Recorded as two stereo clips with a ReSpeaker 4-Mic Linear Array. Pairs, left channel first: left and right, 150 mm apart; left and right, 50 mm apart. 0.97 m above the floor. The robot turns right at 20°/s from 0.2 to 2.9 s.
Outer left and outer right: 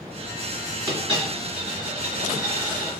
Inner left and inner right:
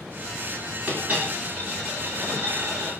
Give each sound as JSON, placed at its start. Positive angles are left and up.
{"t": 0.9, "sound": "a dropped coin", "azimuth_deg": -150, "distance_m": 1.7}